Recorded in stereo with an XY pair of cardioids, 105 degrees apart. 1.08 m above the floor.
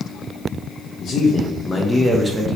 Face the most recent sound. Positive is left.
turn(degrees=-35)